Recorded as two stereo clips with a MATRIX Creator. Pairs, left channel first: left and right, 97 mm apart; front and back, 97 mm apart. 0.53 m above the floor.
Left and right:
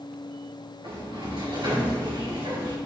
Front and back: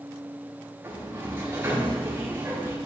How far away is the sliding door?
About 4 m.